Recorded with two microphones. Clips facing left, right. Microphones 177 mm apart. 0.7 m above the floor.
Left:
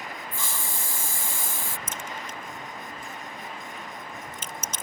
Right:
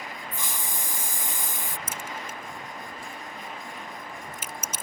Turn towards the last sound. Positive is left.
turn(degrees=-10)  # may be behind; listen again after turning